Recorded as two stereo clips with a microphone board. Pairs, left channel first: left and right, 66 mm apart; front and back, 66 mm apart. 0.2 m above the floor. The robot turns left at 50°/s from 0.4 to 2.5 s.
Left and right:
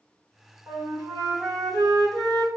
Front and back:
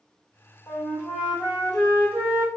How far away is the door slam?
I don't hear a door slam.